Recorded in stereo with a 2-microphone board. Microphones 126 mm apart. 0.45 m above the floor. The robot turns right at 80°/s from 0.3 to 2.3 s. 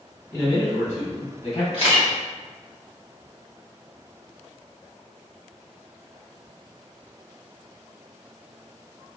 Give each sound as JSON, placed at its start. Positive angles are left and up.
{"t": 0.3, "sound": "a man speaking", "azimuth_deg": 20, "distance_m": 2.0}
{"t": 1.7, "sound": "a camera shutter", "side_deg": 50, "distance_m": 1.1}